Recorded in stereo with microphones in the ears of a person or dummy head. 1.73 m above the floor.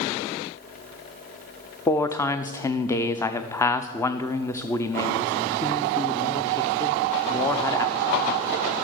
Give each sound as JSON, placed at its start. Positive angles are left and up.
{"t": 1.9, "sound": "a man speaking", "side_deg": 5, "distance_m": 0.5}